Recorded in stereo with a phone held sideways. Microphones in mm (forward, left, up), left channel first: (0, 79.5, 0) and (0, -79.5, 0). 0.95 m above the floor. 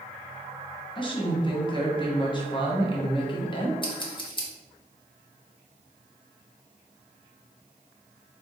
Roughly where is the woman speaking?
Left.